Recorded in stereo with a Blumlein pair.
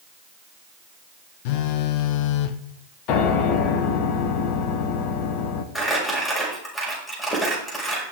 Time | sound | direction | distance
1.4 | a phone buzzing | 45° left | 0.9 m
3.1 | a piano | 40° left | 1.6 m
5.8 | crumpling | 10° left | 6 m